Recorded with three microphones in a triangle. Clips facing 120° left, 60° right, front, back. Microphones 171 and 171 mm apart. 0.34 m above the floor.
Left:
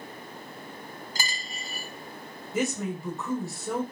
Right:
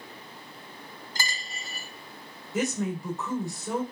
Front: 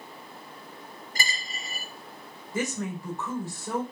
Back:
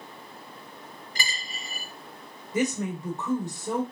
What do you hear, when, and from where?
1.1 s a dropped coin: 40° left, 1.2 m
2.5 s a woman speaking: 155° right, 0.9 m